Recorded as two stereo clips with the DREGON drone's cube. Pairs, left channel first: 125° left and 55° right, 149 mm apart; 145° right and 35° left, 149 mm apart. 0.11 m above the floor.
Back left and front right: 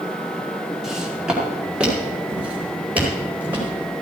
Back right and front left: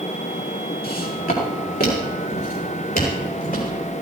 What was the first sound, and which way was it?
Footsteps, 140° right.